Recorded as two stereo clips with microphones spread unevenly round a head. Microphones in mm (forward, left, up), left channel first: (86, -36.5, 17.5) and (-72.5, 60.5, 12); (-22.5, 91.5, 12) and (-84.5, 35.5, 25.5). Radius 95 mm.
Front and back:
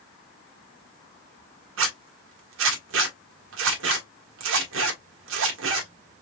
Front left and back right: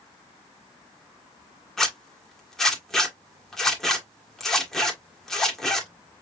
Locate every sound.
1.8 s a zipper: 130° left, 2 m